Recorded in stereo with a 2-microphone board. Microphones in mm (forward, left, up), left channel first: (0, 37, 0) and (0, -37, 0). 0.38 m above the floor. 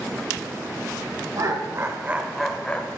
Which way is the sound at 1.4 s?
55° right (ahead or behind).